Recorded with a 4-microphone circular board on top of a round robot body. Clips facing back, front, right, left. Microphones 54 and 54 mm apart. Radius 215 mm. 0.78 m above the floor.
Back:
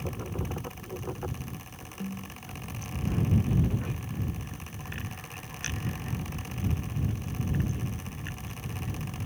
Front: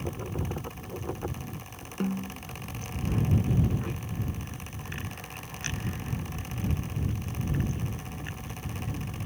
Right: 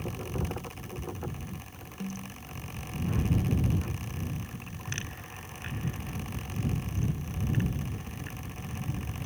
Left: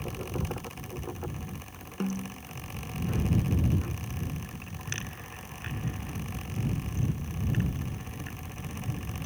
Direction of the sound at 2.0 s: 45° left.